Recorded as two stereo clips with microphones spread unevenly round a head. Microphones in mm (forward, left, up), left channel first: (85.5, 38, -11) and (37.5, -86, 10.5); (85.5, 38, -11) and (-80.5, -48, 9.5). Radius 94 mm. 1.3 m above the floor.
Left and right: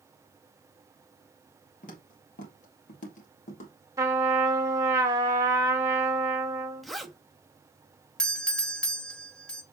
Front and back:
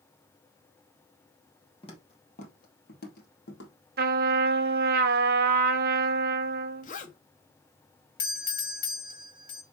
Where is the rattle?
No rattle in this recording.